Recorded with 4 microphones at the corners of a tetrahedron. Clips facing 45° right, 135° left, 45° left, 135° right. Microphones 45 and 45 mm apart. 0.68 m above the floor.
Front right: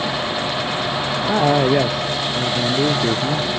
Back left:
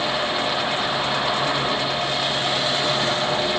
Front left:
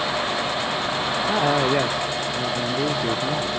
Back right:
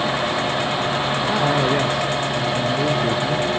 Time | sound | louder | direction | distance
1.2 | a man speaking | front right 6 dB, even | 40° right | ?